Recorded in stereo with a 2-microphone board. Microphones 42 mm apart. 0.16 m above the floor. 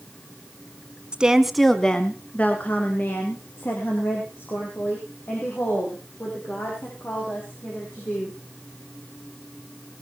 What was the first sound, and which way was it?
A woman speaking, 25° right (ahead or behind).